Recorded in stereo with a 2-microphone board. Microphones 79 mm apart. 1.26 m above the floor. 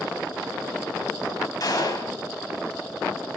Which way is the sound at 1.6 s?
50° left (ahead or behind).